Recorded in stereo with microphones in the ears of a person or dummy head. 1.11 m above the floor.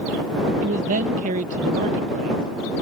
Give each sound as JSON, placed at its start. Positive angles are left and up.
{"t": 0.6, "sound": "a man speaking", "side_deg": -40}